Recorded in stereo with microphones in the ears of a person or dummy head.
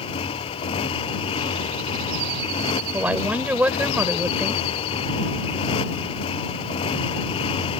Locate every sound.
0.0 s a motorcycle: 25° left (ahead or behind)
2.9 s a woman speaking: 10° right (ahead or behind)